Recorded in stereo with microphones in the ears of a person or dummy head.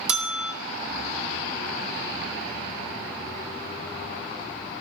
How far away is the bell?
About 0.9 m.